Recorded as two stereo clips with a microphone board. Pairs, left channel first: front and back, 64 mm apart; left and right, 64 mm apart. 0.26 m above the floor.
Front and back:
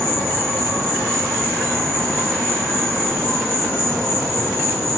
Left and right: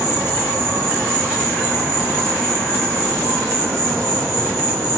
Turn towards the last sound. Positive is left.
turn(degrees=-75)